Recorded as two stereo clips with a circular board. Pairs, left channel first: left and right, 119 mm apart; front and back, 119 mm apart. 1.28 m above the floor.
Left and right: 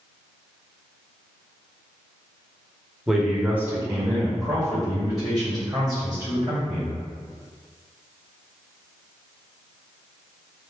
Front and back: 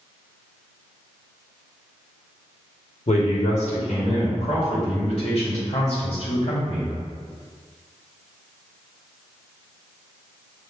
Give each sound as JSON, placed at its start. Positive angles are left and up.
{"t": 3.1, "sound": "a man speaking", "azimuth_deg": 0, "distance_m": 0.9}